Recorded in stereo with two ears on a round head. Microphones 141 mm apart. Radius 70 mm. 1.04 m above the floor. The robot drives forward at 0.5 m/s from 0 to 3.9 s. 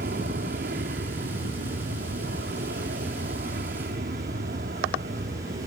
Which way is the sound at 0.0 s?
65° right (ahead or behind).